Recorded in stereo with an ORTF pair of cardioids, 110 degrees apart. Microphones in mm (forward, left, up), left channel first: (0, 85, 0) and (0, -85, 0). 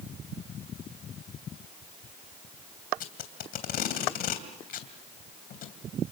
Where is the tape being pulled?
60° left, 3 m.